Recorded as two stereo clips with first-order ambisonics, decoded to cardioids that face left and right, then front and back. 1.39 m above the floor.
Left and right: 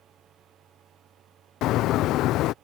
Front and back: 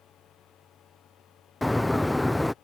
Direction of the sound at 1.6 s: 85° left.